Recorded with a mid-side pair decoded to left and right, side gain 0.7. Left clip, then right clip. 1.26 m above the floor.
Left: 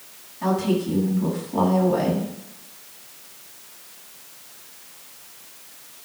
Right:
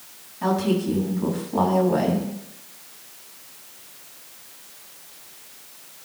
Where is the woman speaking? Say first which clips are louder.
Even; 15° right, 7.5 m.